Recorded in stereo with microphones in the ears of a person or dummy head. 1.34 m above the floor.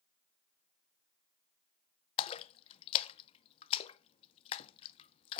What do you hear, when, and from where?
2.2 s a splash: 35° left (ahead or behind), 0.5 m